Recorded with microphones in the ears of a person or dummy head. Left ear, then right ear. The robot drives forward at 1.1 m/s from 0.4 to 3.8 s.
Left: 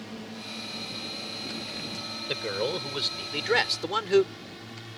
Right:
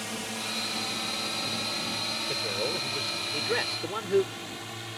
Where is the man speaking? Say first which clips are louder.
Left 4 dB; 40° left (ahead or behind); by 4.3 s 50° left (ahead or behind).